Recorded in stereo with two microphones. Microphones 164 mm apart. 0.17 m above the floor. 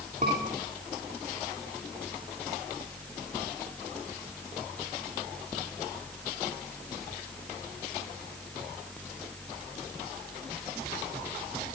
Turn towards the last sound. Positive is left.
turn(degrees=-45)  # may be behind; listen again after turning